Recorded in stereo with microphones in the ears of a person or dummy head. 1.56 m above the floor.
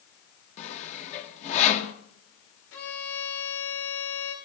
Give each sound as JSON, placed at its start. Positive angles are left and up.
{"t": 0.6, "sound": "sawing", "side_deg": 40, "distance_m": 1.5}
{"t": 2.7, "sound": "a violin", "side_deg": 75, "distance_m": 3.5}